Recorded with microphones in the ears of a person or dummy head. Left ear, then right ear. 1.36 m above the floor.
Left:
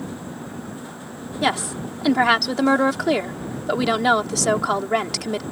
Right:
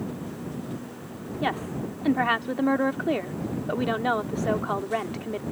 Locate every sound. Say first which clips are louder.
1.4 s a woman speaking: left 7 dB; 90° left